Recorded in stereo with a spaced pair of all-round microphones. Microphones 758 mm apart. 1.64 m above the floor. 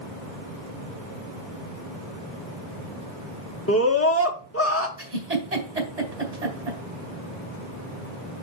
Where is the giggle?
55° right (ahead or behind), 2 m.